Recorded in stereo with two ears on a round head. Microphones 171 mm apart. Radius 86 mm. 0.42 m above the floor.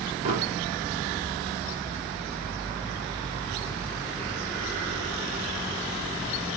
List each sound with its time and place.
0.2 s an explosion: 40° right (ahead or behind), 1.8 m